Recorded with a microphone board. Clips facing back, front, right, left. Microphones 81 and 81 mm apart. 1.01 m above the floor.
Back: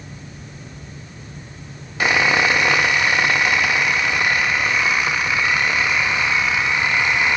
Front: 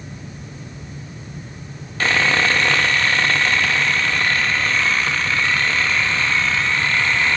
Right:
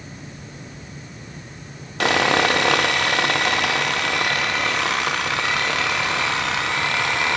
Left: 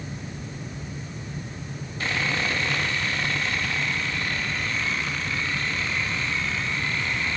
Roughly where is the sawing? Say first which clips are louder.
Back 1 dB, right 10 dB; right.